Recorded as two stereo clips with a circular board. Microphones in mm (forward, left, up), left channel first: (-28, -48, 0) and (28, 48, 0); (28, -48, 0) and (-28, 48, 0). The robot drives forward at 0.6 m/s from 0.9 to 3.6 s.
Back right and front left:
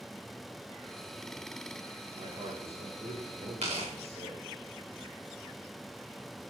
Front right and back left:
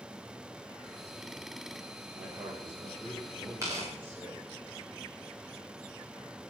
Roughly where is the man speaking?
Ahead left.